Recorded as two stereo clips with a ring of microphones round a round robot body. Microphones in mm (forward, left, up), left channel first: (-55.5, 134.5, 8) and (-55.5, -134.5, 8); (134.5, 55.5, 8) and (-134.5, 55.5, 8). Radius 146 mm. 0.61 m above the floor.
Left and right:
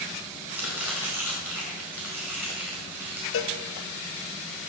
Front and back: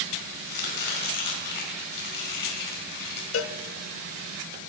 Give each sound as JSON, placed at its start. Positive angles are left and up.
{"t": 0.5, "sound": "chopping", "azimuth_deg": -5, "distance_m": 5.0}
{"t": 3.3, "sound": "a cowbell", "azimuth_deg": 40, "distance_m": 0.8}